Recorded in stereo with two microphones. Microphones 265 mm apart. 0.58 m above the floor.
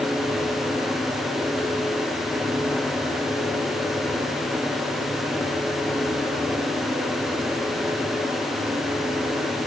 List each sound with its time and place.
Only background noise.